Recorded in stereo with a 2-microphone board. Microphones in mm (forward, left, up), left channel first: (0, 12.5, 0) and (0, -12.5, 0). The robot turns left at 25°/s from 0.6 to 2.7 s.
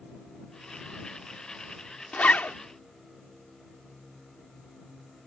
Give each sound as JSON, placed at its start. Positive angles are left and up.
{"t": 2.1, "sound": "a zipper", "side_deg": 85}